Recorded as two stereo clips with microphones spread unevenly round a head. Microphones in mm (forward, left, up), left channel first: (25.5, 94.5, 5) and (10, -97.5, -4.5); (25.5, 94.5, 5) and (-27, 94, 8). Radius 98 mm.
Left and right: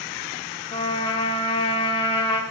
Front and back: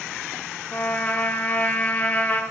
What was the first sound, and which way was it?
A trumpet, 40° left.